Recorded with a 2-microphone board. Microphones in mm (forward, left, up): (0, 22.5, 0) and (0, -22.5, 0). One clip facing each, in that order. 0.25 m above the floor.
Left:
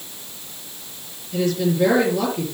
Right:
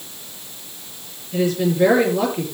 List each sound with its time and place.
1.3 s a woman speaking: 20° right (ahead or behind), 6 m